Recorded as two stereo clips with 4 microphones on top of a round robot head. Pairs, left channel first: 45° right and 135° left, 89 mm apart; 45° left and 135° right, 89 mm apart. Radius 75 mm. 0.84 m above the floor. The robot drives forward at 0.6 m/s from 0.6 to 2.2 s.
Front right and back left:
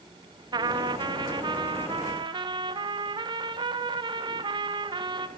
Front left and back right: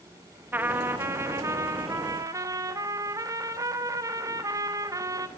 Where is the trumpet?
160° left, 1.1 m; by 5.3 s 170° left, 1.9 m.